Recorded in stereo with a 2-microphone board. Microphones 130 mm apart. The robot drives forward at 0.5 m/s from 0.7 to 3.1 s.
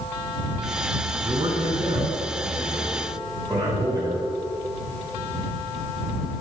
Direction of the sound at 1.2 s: 35° right (ahead or behind).